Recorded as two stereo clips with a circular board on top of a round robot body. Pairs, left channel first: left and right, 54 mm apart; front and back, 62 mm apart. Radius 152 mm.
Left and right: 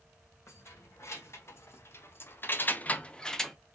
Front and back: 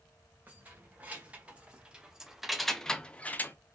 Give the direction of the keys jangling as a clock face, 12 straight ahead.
8 o'clock.